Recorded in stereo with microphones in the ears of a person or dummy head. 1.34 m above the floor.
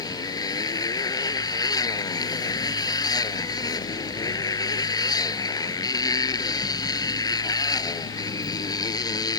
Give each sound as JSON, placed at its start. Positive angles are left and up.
{"t": 0.0, "sound": "a motorcycle", "side_deg": 20}